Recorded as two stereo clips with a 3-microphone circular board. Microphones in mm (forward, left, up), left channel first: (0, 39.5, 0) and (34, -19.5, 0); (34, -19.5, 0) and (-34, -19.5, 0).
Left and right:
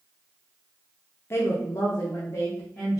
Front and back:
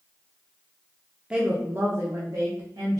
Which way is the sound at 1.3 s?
110° left.